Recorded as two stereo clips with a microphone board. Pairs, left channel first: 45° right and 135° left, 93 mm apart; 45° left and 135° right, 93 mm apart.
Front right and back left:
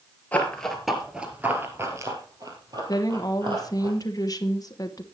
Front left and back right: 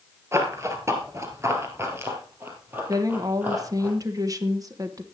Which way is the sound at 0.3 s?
105° right.